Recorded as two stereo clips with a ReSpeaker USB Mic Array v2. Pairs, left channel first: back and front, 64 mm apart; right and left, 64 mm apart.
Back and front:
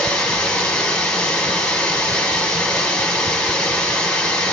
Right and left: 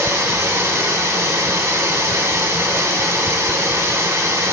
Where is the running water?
105° left, 1.4 m.